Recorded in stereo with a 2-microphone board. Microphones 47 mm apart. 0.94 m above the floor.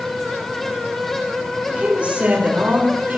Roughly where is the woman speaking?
Right.